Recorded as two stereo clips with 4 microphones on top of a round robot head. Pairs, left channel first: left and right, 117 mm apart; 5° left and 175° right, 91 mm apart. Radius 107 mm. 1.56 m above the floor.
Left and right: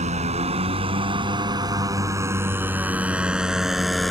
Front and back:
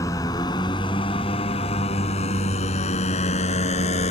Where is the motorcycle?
60° right; by 4.1 s straight ahead.